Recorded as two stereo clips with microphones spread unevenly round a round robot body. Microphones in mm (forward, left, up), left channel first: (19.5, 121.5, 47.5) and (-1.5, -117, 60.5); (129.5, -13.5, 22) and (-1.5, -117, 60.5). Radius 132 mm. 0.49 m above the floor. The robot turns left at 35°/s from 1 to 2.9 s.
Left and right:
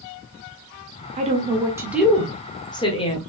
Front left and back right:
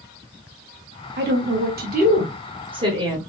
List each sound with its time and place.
1.2 s a woman speaking: 155° right, 1.4 m; by 3.2 s 145° left, 1.4 m